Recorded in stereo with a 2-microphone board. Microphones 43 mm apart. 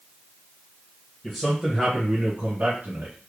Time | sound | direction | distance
1.2 | a man speaking | 10° left (ahead or behind) | 1.2 m